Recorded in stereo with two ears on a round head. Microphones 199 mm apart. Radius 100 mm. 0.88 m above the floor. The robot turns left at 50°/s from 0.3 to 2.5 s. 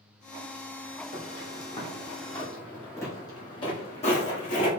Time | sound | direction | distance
1.1 | footsteps | 40° left (ahead or behind) | 2 m